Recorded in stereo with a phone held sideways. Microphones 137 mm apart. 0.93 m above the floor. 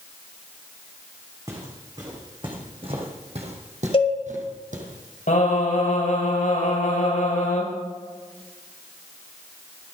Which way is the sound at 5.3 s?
80° left.